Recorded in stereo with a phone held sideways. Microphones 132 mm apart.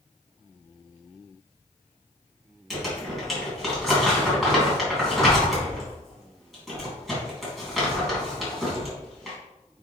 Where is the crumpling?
Centre (ahead or behind), 3.5 m.